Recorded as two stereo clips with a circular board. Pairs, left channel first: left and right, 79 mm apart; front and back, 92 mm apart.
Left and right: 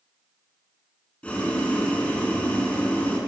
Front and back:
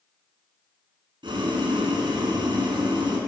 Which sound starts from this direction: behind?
Boiling, at 1.2 s.